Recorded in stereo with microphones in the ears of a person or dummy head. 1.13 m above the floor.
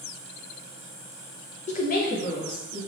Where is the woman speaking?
30° left (ahead or behind), 0.6 m; by 2.8 s 50° left (ahead or behind), 1.9 m.